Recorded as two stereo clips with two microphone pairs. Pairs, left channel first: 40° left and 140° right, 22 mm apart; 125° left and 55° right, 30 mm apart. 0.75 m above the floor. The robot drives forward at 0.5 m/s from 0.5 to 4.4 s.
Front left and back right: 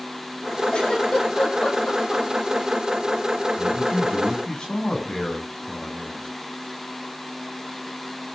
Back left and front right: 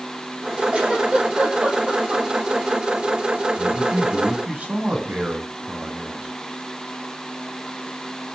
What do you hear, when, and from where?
0.7 s a giggle: 5° right, 6.5 m; by 2.2 s 10° right, 6 m
3.6 s a man speaking: 15° right, 8 m